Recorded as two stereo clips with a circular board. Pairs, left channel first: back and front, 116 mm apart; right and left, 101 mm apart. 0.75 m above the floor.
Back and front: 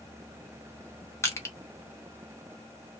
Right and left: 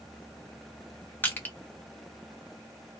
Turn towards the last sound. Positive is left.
turn(degrees=-140)